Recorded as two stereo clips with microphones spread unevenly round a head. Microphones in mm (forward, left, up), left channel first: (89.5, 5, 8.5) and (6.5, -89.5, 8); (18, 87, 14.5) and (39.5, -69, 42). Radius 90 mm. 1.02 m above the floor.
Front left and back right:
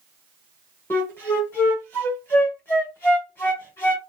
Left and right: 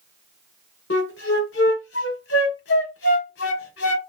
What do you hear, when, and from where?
0.9 s a flute: 120° left, 0.9 m